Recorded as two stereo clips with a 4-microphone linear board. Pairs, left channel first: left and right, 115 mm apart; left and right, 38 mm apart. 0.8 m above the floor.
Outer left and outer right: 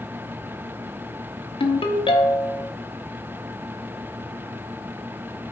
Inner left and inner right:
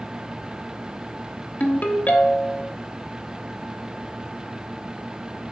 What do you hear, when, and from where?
1.6 s a ringtone: 50° left (ahead or behind), 0.7 m